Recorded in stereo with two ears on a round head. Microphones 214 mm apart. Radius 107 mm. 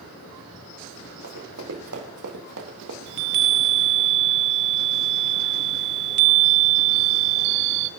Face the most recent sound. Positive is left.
turn(degrees=-45)  # may be behind; listen again after turning